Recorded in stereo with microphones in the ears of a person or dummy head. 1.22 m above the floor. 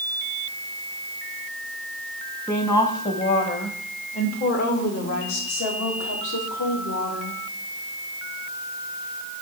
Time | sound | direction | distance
2.5 | a woman speaking | 15° left (ahead or behind) | 1.4 m